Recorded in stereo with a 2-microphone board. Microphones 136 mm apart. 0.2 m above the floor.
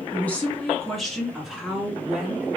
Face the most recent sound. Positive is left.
turn(degrees=-10)  # may be behind; listen again after turning